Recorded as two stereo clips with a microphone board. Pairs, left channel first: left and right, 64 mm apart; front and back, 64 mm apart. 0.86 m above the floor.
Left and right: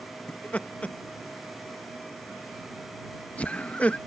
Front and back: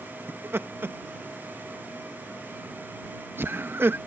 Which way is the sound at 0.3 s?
145° left.